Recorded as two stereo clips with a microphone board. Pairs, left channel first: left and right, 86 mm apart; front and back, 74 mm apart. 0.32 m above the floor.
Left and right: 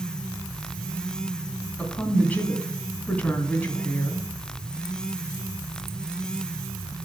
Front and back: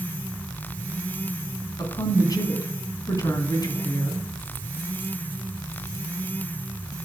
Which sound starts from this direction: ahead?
A woman speaking, at 1.8 s.